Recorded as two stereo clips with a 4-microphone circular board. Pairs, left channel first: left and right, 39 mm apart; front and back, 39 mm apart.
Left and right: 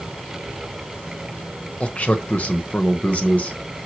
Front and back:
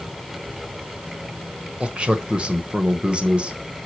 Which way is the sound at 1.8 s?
125° left.